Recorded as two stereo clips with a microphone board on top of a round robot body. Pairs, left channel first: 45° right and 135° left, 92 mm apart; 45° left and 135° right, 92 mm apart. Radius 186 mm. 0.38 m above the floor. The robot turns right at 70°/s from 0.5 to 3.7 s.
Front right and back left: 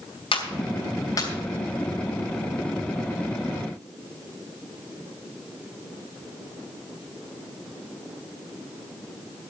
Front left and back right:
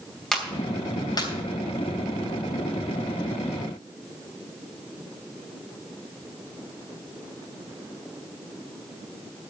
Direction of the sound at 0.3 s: 40° right.